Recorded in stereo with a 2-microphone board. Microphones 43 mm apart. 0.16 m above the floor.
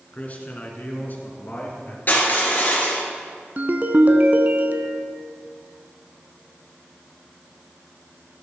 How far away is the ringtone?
About 0.5 m.